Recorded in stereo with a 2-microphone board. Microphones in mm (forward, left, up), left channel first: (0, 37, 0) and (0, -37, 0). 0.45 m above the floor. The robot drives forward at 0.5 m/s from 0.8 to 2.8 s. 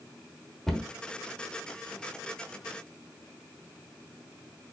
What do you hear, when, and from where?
0.7 s a cupboard door: 5° left (ahead or behind), 1.0 m